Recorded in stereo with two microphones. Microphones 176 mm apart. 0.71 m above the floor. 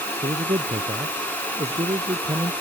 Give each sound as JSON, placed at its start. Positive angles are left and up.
{"t": 0.2, "sound": "a man speaking", "side_deg": -35}